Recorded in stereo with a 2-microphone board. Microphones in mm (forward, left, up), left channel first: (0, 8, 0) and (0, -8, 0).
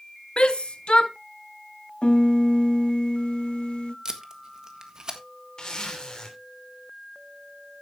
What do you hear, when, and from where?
0.4 s a shout: 70° left (ahead or behind), 1.0 m
2.0 s a piano: 80° left, 0.9 m
4.0 s tape being pulled: 40° right (ahead or behind), 1.6 m
5.6 s a zipper: 45° left (ahead or behind), 3 m